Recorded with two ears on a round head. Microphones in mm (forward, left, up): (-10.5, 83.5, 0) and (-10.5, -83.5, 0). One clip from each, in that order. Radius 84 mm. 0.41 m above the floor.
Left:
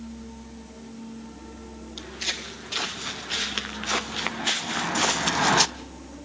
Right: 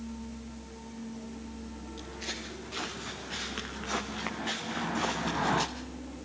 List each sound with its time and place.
2.0 s footsteps: 70° left (ahead or behind), 2.5 m; by 5.7 s 60° left (ahead or behind), 0.8 m